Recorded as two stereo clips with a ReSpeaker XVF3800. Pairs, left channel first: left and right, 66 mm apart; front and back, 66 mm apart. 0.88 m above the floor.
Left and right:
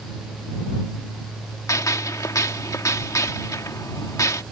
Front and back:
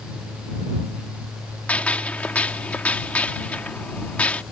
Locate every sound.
1.7 s a gunshot: 65° left